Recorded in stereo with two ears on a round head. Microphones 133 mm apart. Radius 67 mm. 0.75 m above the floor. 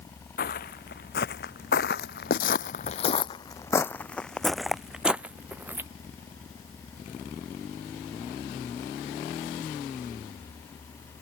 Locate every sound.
0.4 s footsteps: 65° left (ahead or behind); by 5.9 s 15° right (ahead or behind)